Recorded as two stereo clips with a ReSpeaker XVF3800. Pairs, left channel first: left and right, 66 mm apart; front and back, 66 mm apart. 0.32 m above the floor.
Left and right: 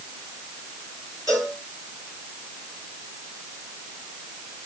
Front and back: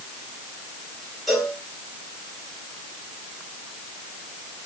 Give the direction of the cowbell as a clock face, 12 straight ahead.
3 o'clock.